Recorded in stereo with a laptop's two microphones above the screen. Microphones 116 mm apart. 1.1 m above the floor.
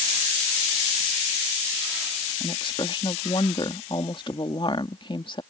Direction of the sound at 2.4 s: 45° left (ahead or behind).